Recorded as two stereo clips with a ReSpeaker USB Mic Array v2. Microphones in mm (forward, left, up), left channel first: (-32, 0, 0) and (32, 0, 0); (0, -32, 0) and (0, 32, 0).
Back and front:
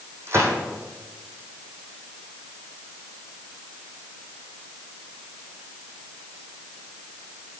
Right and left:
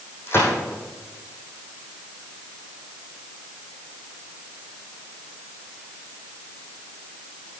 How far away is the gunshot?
About 3.5 m.